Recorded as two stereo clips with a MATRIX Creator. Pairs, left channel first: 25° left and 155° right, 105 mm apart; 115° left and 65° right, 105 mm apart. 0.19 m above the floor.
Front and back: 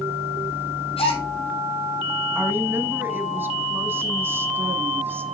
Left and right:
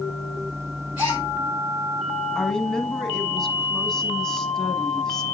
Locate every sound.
1.0 s a gasp: 10° left, 6 m
2.4 s a woman speaking: 170° right, 1.2 m